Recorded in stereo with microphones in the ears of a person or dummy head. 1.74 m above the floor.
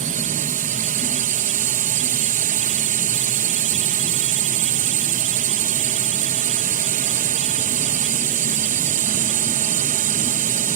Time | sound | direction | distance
0.0 | a drone | 40° right (ahead or behind) | ?